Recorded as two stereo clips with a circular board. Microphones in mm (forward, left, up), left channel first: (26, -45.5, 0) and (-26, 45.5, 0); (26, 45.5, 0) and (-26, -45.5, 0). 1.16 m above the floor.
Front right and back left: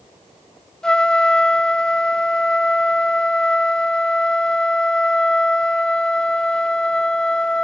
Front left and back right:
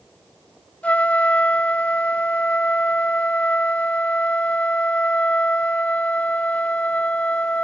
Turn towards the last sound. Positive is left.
turn(degrees=10)